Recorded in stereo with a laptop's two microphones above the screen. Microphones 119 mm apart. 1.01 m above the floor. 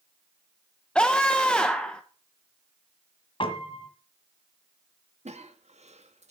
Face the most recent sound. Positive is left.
turn(degrees=-70)  # may be behind; listen again after turning